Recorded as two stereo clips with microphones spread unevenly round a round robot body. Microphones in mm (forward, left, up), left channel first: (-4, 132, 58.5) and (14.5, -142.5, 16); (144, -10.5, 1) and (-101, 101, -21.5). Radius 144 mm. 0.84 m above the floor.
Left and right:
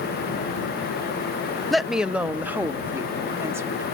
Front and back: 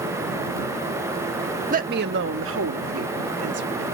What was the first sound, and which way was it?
A woman speaking, 165° right.